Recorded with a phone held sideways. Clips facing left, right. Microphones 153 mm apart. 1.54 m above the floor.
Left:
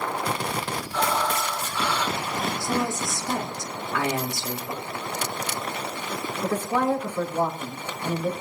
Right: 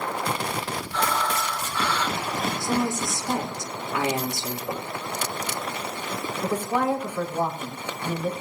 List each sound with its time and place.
0.9 s breathing: 10° left (ahead or behind), 2.5 m
2.6 s a woman speaking: 20° right (ahead or behind), 3.5 m
4.7 s knocking: 45° right (ahead or behind), 7 m
6.4 s a woman speaking: 10° right (ahead or behind), 5 m